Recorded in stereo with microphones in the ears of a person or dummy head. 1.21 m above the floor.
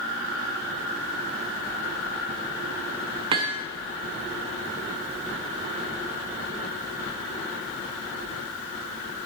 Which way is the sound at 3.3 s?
20° right (ahead or behind).